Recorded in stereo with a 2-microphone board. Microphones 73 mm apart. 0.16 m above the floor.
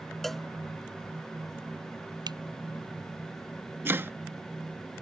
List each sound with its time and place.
0.2 s a cowbell: 5° left (ahead or behind)
2.3 s a finger snap: 75° right (ahead or behind)
3.9 s chopping: 30° right (ahead or behind)